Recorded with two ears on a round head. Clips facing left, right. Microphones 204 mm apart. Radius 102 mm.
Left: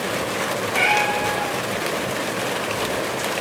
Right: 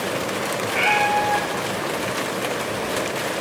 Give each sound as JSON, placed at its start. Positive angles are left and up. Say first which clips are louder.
{"t": 0.7, "sound": "a cat meowing", "louder": "right 2 dB", "side_deg": -10, "distance_m": 4.0}